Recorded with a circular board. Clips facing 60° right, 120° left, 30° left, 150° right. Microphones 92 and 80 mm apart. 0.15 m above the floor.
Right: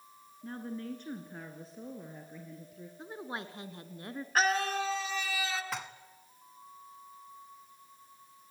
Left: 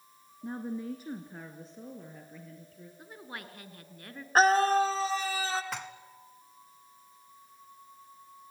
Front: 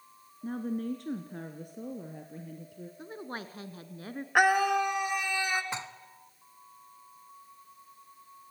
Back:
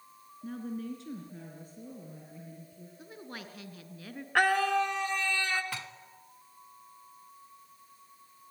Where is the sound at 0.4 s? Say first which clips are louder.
Left 4 dB, front 4 dB; 60° left, 1.5 m; by 2.9 s 15° left, 3 m.